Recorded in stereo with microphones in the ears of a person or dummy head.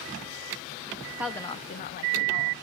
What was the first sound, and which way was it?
A woman speaking, 15° right (ahead or behind).